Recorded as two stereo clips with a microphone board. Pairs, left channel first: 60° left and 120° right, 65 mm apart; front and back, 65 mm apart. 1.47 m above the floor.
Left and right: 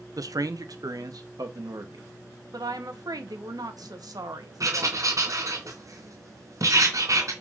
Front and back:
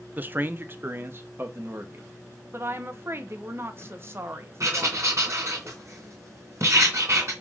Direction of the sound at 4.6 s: 145° right.